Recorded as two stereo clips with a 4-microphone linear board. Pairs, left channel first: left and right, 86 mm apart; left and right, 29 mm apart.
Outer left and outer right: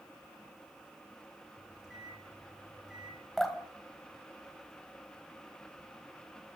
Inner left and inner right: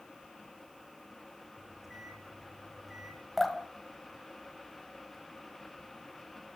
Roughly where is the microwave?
Centre.